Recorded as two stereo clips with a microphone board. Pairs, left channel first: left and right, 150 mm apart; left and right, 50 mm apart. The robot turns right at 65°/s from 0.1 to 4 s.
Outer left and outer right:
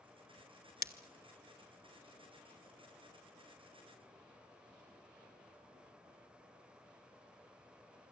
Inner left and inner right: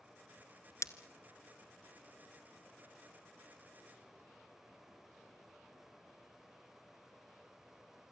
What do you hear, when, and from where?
0.8 s breaking glass: 75° left (ahead or behind), 1.1 m; by 0.9 s 80° left, 1.1 m